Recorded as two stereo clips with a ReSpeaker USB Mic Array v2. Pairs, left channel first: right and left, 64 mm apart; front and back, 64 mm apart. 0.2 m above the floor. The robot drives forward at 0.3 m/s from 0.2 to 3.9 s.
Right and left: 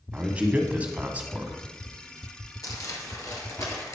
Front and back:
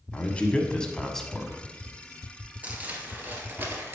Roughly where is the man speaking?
Ahead left.